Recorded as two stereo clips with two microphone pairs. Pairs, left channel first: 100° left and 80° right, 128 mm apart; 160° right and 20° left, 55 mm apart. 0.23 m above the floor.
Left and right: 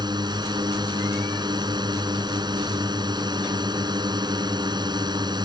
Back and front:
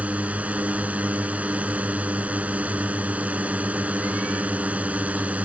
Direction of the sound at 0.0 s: 35° right.